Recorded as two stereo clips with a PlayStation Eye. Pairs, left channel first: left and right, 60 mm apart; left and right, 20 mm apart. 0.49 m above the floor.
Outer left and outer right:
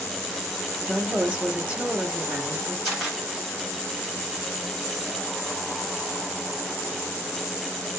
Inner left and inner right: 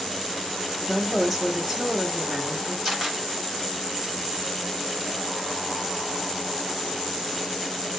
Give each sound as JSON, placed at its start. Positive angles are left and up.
{"t": 0.9, "sound": "a woman speaking", "side_deg": -15, "distance_m": 0.7}
{"t": 2.9, "sound": "a camera shutter", "side_deg": -5, "distance_m": 1.4}